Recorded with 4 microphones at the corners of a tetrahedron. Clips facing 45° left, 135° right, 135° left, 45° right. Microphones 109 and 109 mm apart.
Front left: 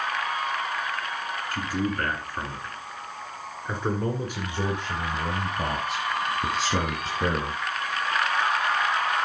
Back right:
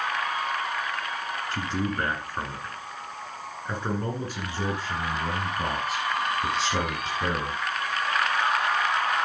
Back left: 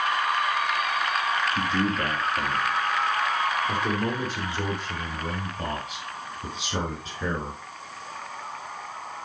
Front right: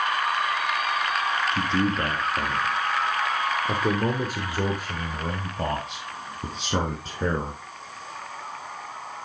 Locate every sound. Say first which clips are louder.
1.5 s a man speaking: front left 1 dB, front right 1 dB; 95° right, 1.8 m; by 7.6 s 5° right, 4 m